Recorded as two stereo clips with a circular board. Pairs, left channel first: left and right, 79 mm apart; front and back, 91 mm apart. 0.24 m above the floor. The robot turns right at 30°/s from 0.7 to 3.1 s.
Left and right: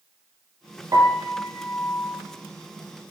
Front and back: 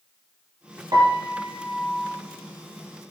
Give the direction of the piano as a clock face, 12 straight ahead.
4 o'clock.